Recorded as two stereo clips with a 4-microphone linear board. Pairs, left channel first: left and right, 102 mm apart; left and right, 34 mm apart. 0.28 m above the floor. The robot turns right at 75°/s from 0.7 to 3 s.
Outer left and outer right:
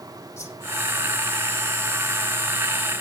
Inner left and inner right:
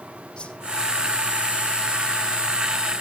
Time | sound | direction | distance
0.4 | a whoosh | 25° left (ahead or behind) | 5 m